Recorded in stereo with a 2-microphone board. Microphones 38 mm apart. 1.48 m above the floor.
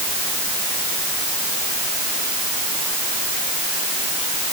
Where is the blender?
I don't hear a blender.